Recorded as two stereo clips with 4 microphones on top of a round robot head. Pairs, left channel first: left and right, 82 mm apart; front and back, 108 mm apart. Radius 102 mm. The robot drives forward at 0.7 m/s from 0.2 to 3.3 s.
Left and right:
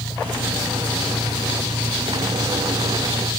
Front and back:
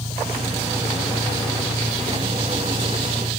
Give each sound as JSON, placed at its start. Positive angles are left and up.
{"t": 0.0, "sound": "an engine running", "azimuth_deg": -45}